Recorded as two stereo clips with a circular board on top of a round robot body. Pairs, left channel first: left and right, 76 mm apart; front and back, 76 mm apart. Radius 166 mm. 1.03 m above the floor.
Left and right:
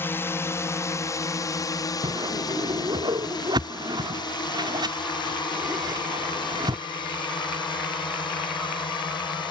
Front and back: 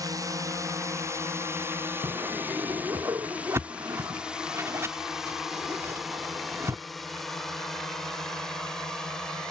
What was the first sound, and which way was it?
A drone, 150° left.